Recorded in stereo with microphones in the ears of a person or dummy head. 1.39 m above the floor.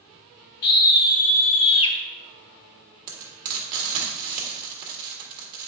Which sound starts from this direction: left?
A scream, at 0.6 s.